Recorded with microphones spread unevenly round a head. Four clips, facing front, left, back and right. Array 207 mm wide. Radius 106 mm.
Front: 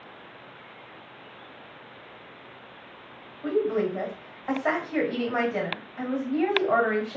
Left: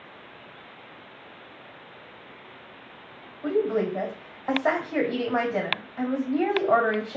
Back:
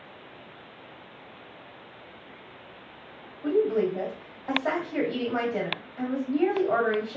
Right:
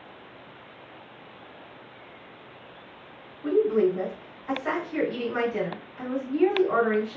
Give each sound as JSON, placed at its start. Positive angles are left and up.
{"t": 3.4, "sound": "a woman speaking", "azimuth_deg": 75, "distance_m": 1.9}